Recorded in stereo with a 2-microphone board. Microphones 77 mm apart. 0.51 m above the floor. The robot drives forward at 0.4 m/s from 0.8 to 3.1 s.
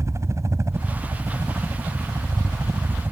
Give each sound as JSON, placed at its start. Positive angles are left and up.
{"t": 0.0, "sound": "a helicopter", "side_deg": -35}